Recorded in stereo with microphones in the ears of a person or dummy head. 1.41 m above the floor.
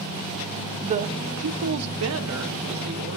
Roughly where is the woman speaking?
Right.